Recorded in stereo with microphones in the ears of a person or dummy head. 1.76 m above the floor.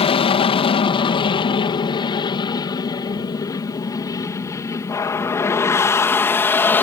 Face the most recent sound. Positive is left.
turn(degrees=10)  # may be behind; listen again after turning